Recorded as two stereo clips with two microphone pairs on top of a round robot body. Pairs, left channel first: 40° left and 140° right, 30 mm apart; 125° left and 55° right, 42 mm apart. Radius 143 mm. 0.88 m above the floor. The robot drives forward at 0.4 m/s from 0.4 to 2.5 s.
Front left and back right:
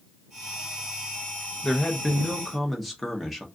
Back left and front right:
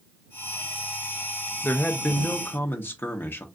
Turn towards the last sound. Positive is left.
turn(degrees=140)